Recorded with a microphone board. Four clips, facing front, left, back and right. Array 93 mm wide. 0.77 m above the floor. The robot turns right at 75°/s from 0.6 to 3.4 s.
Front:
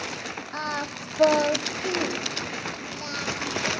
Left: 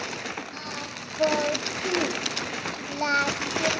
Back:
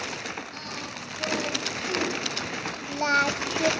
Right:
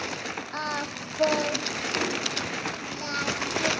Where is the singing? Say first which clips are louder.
Right 5 dB, front 7 dB; 45° right, 1.1 m; by 3.7 s 165° left, 1.1 m.